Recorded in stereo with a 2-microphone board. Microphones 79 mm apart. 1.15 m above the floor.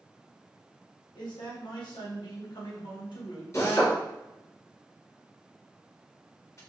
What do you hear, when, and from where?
1.1 s a man speaking: 80° left, 1.6 m
3.5 s a drill: 40° left (ahead or behind), 1.9 m